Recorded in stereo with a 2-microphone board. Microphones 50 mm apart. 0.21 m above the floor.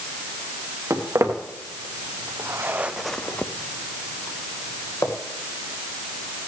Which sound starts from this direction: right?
Footsteps, at 0.9 s.